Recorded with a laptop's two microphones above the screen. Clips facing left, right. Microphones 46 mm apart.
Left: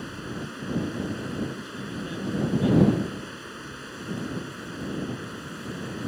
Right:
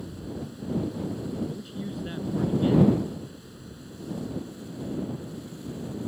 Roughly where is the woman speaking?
Centre.